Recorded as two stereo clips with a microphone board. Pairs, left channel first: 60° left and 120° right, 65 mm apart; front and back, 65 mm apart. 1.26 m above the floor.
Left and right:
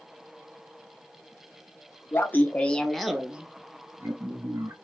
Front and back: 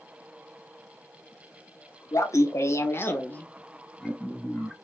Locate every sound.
2.1 s laughter: 15° left, 0.8 m; by 4.7 s 95° right, 1.1 m